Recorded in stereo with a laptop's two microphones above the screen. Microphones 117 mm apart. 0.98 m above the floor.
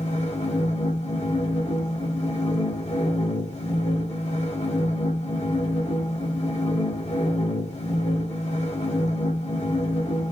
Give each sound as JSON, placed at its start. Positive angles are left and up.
{"t": 0.0, "sound": "a machine running", "side_deg": 80, "distance_m": 1.9}